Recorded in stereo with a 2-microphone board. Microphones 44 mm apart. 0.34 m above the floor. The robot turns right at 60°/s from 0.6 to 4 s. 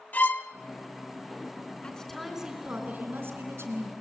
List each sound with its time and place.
0.1 s a violin: 40° left (ahead or behind), 0.8 m
1.8 s a woman speaking: 155° left, 3.5 m; by 3.9 s 80° right, 3.5 m